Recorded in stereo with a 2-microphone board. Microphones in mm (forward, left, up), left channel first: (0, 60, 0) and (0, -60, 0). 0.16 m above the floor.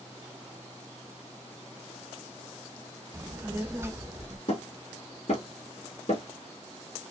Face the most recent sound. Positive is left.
turn(degrees=55)  # may be behind; listen again after turning